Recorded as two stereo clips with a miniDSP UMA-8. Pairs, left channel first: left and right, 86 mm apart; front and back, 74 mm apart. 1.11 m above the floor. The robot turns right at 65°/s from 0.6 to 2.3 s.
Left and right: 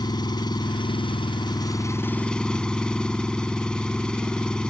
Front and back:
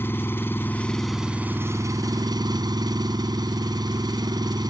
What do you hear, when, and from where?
0.0 s an engine running: 60° left; by 4.7 s 170° left